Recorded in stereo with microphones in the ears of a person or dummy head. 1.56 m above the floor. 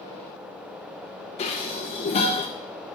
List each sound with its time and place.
1.4 s dishes clattering: 35° left (ahead or behind), 1.0 m